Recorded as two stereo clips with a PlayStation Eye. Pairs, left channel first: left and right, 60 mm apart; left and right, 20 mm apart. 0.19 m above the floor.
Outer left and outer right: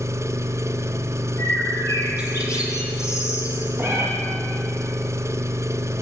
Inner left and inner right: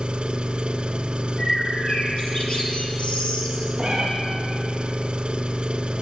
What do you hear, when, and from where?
0.0 s an engine running: 65° right (ahead or behind), 0.9 m
1.4 s a bird: 60° left (ahead or behind), 4 m
3.8 s a cat meowing: 15° right (ahead or behind), 5.5 m